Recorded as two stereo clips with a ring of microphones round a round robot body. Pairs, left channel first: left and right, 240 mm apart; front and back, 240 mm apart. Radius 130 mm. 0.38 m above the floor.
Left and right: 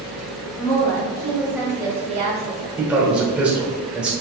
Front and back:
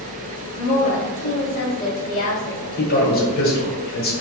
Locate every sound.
0.6 s a woman speaking: 55° left, 1.0 m; by 2.7 s 55° right, 1.2 m
2.8 s a man speaking: 10° right, 1.0 m